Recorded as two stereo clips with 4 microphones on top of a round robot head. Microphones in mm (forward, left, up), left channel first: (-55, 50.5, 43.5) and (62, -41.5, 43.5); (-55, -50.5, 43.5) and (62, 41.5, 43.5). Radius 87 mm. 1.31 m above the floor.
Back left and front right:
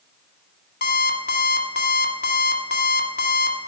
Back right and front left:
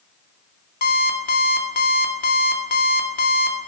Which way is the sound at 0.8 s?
Straight behind.